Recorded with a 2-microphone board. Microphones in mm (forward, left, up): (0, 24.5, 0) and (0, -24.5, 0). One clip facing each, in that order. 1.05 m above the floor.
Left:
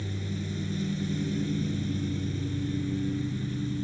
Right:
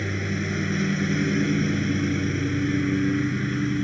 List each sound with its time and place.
0.0 s a lawn mower: 65° right (ahead or behind)